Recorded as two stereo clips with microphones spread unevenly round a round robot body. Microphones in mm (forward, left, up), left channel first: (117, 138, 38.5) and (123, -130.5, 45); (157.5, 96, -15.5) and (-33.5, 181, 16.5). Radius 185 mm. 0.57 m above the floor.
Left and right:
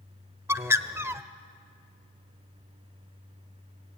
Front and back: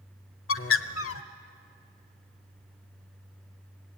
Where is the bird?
5° right, 0.9 m.